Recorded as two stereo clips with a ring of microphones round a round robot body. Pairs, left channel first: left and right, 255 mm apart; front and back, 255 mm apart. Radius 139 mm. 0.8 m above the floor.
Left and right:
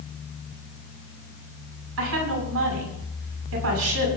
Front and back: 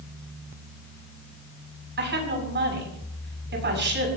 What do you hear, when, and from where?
2.0 s a woman speaking: 135° right, 7 m